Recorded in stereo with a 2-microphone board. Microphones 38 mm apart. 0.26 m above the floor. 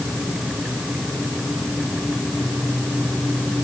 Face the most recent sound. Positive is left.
No sound to turn to.